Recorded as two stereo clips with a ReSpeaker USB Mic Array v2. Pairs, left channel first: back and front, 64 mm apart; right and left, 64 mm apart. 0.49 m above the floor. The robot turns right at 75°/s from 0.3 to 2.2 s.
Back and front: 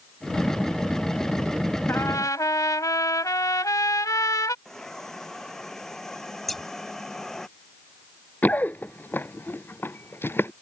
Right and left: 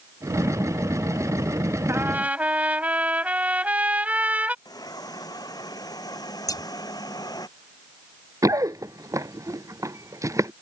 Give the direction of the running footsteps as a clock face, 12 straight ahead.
8 o'clock.